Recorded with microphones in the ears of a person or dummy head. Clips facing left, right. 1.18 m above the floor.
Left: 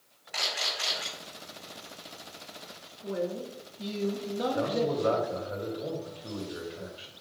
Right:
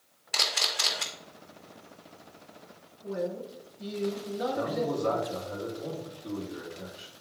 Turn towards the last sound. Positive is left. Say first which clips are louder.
# left 2 dB
turn(degrees=15)  # may be behind; listen again after turning